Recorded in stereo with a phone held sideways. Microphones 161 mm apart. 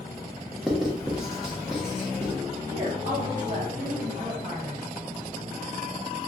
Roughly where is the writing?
Centre.